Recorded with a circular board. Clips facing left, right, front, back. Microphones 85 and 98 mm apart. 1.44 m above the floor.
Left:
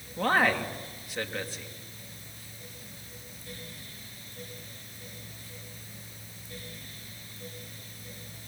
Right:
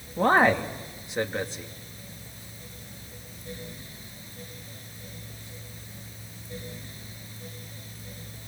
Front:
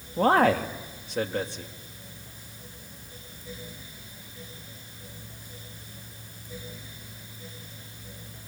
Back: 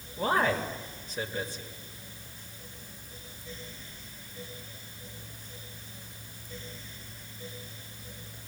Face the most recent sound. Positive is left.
turn(degrees=-25)